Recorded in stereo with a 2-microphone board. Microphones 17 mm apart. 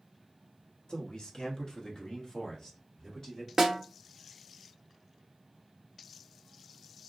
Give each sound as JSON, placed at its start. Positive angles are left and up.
{"t": 0.9, "sound": "a man speaking", "side_deg": 50, "distance_m": 0.9}
{"t": 3.6, "sound": "a snare drum", "side_deg": -20, "distance_m": 0.6}